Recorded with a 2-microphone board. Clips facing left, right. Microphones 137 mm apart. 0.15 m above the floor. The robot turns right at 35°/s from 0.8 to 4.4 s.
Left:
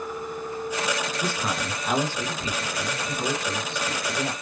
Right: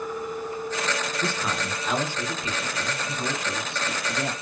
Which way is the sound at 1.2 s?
5° left (ahead or behind).